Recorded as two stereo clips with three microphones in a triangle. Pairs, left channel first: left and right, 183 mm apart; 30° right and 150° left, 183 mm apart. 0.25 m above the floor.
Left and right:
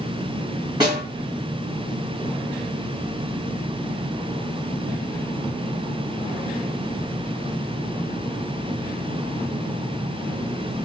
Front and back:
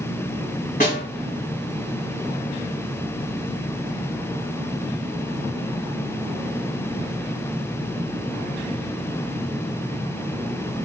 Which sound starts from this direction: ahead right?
A snare drum, at 0.8 s.